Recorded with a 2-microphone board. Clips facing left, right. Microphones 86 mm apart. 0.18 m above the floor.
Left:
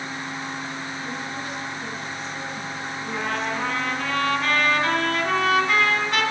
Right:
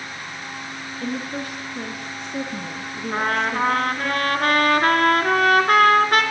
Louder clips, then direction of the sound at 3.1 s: Right 5 dB; 55° right (ahead or behind).